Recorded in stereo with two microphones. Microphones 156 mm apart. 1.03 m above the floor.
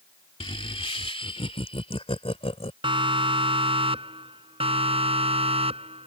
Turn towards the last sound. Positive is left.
turn(degrees=-40)  # may be behind; listen again after turning